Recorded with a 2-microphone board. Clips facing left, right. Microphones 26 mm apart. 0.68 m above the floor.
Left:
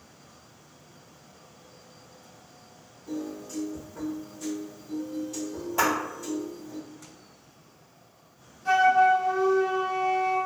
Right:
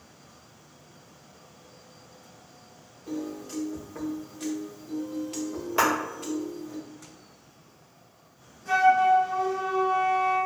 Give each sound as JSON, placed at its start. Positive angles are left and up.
{"t": 3.1, "sound": "a piano", "side_deg": -65, "distance_m": 0.6}
{"t": 5.8, "sound": "a clap", "side_deg": -40, "distance_m": 1.3}
{"t": 8.7, "sound": "a flute", "side_deg": 75, "distance_m": 0.9}